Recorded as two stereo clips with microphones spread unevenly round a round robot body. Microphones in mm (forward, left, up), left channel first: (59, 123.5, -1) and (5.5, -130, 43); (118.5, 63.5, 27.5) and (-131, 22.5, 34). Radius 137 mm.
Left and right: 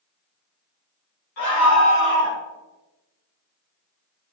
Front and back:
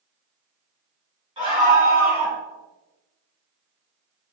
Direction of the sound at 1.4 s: 120° left.